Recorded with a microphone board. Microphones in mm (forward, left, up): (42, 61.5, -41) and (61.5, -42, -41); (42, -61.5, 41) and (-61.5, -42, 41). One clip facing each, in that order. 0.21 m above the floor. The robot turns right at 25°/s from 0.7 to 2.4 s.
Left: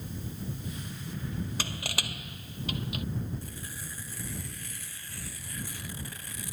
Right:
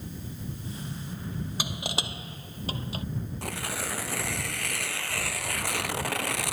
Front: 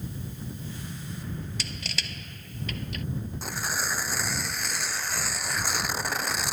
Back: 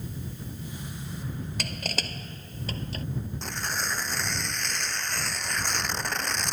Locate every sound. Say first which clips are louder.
1.6 s crushing: right 3 dB, back 4 dB; 155° right; by 3.0 s 135° right
3.4 s tearing paper: right 10 dB, front 2 dB; 95° right